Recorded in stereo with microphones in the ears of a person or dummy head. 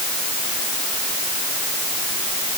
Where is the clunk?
I don't hear a clunk.